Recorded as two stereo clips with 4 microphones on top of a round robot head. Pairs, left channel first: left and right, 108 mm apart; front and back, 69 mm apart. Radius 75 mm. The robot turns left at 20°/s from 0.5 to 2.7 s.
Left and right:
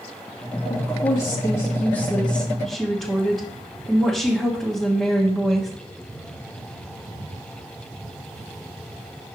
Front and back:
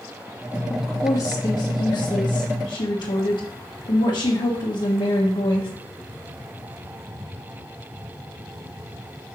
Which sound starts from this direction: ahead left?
A woman speaking, at 0.7 s.